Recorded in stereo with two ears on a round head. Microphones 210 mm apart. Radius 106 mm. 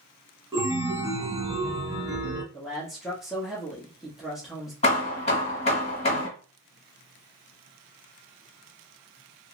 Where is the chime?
15° right (ahead or behind), 0.7 m.